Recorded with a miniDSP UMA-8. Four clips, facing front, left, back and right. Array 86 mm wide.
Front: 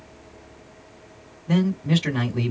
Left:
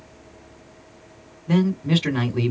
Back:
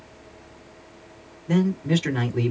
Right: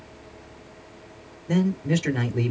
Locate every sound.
1.5 s a man speaking: 70° left, 2 m